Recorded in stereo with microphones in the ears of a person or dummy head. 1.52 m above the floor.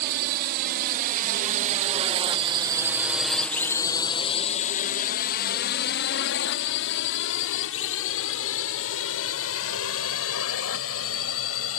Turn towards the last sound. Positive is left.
turn(degrees=85)